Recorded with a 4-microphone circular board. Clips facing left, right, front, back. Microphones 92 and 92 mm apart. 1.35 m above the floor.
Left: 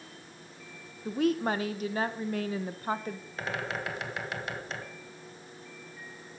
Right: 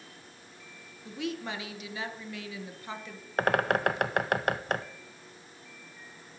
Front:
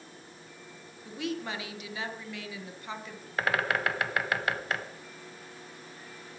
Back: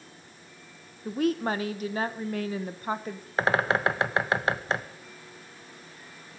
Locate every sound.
1.1 s a woman speaking: 135° left, 1.1 m
3.4 s a bird: 120° right, 0.9 m